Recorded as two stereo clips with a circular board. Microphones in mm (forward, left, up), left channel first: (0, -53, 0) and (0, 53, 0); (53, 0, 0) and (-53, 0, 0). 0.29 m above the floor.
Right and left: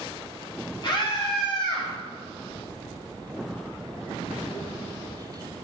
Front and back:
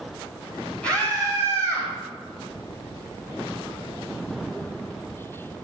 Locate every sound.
0.8 s a scream: 75° right, 2.5 m; by 1.9 s 50° right, 2.5 m